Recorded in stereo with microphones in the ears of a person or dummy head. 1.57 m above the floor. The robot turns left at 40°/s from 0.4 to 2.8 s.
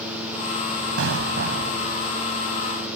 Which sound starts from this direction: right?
An explosion, at 1.0 s.